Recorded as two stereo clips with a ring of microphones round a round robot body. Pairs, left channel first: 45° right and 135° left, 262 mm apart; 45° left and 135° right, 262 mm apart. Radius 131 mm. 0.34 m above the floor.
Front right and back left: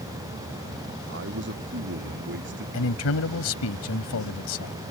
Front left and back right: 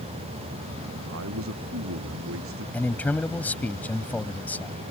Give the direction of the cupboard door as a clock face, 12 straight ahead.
No cupboard door in this recording.